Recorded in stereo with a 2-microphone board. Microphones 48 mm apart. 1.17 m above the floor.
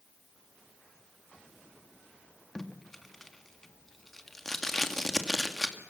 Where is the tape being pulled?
5° left (ahead or behind), 1.9 m.